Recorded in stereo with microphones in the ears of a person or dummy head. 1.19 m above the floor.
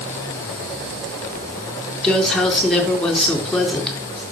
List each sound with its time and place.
2.0 s a woman speaking: 5° left (ahead or behind), 4 m